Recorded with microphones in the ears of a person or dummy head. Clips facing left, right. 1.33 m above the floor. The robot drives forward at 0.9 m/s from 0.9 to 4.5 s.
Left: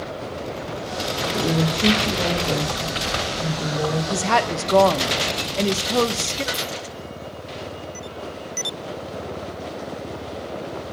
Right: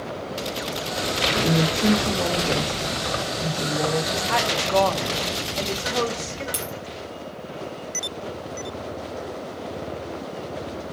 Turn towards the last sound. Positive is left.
turn(degrees=-30)  # may be behind; listen again after turning